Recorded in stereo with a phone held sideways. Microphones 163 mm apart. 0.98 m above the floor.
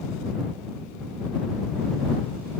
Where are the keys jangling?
I don't hear keys jangling.